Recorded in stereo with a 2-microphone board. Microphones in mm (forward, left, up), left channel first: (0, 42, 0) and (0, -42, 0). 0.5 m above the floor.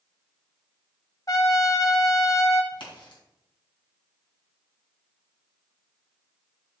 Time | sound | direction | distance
1.3 | a trumpet | 45° left (ahead or behind) | 1.0 m
2.7 | a crack | 75° left (ahead or behind) | 3.5 m